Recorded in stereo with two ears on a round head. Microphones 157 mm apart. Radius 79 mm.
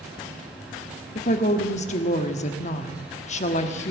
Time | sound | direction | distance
1.1 | a woman speaking | 45° left (ahead or behind) | 1.0 m